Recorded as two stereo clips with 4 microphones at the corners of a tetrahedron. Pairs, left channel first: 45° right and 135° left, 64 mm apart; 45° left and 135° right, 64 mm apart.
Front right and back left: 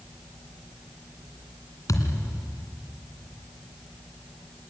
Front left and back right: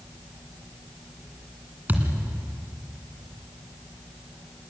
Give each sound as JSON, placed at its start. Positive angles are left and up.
{"t": 1.9, "sound": "a thud", "azimuth_deg": -70, "distance_m": 2.5}